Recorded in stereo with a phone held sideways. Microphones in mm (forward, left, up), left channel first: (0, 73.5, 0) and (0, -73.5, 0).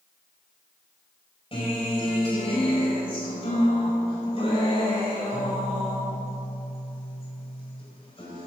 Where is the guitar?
35° left (ahead or behind), 5 m.